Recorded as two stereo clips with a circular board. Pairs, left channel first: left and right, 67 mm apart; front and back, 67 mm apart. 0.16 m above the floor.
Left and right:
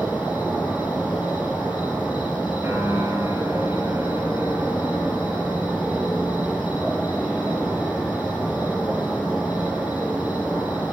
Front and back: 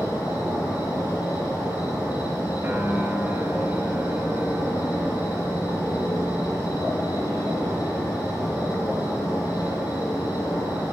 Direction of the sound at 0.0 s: 15° right.